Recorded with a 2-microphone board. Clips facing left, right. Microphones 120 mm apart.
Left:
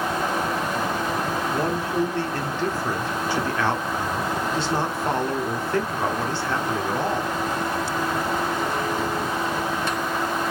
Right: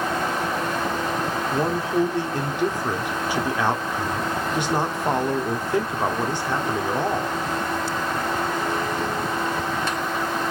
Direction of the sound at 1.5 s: 15° right (ahead or behind).